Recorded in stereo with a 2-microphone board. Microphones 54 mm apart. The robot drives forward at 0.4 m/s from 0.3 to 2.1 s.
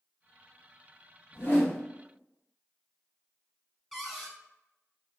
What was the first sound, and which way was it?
A whoosh, 40° left (ahead or behind).